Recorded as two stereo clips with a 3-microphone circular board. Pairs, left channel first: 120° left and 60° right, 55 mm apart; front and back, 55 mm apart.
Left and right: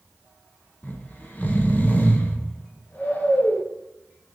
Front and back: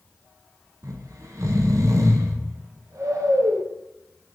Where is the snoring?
175° left, 0.6 m.